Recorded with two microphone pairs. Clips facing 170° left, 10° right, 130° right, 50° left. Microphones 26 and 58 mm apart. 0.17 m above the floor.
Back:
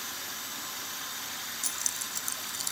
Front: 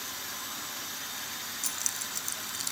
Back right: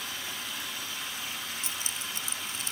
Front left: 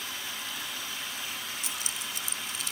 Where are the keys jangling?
95° right.